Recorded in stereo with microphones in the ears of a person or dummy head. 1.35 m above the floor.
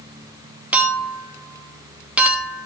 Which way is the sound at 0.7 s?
10° right (ahead or behind).